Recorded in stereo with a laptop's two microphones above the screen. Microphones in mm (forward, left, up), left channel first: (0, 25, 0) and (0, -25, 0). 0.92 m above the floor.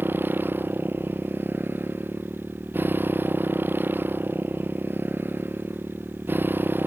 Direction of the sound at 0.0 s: 40° right (ahead or behind).